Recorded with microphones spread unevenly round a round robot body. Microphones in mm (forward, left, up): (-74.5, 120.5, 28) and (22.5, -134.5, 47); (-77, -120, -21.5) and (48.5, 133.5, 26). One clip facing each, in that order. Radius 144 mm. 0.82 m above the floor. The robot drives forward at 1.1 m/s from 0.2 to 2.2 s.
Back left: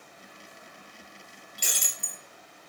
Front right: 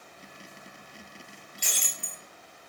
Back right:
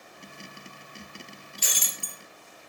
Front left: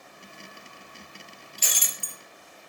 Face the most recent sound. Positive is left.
turn(degrees=65)